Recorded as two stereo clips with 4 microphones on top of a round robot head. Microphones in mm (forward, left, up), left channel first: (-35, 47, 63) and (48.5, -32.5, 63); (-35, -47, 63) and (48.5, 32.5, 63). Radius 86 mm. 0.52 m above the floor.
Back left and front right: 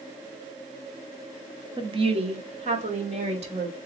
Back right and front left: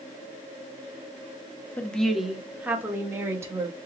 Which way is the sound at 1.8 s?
65° right.